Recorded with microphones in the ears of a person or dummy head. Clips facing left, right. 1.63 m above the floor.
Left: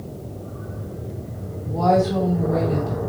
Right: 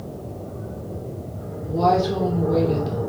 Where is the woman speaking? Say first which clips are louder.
Left 1 dB; 45° right (ahead or behind), 1.8 m.